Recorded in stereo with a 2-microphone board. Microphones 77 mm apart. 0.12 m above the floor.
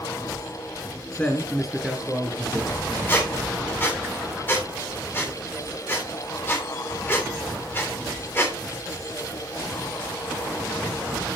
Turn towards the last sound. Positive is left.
turn(degrees=20)  # may be behind; listen again after turning